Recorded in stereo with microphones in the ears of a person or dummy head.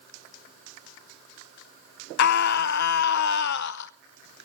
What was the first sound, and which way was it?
A scream, 60° left (ahead or behind).